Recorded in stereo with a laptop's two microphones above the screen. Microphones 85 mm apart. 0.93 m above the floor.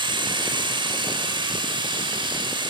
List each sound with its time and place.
0.0 s a machine running: 65° right (ahead or behind), 4.5 m